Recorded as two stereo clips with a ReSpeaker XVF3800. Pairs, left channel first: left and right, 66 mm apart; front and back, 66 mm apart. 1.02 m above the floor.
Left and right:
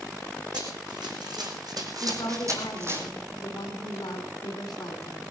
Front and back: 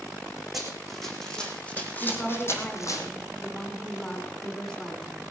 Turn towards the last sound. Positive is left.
turn(degrees=70)